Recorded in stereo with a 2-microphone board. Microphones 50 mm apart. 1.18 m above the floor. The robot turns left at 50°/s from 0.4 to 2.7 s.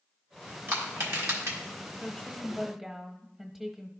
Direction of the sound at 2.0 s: 30° left.